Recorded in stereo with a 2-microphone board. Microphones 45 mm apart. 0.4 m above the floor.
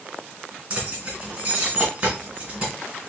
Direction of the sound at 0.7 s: 35° right (ahead or behind).